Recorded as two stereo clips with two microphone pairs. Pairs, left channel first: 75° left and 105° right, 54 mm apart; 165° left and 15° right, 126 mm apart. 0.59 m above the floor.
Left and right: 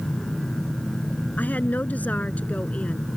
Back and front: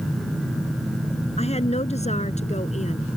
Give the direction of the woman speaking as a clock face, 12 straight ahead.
8 o'clock.